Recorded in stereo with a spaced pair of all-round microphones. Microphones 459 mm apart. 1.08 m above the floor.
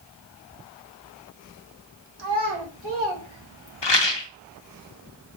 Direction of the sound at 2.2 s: 55° right (ahead or behind).